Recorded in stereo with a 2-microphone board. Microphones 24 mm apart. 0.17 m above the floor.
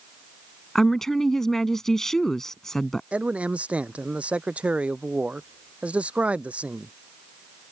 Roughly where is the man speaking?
Right.